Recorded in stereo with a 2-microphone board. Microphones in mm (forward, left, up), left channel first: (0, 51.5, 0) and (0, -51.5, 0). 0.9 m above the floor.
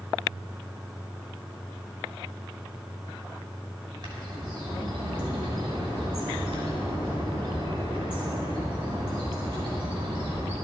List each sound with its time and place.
4.0 s a bird: 45° right (ahead or behind), 5.5 m